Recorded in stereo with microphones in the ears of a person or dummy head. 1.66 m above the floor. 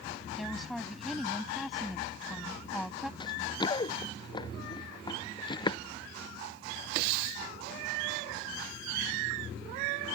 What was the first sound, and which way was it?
A woman speaking, centre (ahead or behind).